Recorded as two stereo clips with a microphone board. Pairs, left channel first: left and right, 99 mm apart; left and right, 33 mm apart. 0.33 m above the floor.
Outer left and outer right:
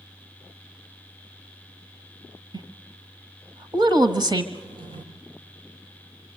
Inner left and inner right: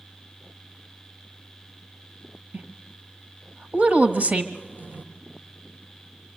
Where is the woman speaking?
50° right (ahead or behind), 1.5 m.